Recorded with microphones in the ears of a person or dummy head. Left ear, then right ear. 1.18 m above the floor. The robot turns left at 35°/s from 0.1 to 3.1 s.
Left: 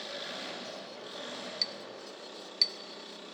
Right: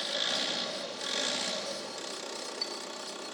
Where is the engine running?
30° right, 1.7 m; by 3.4 s 135° right, 1.7 m.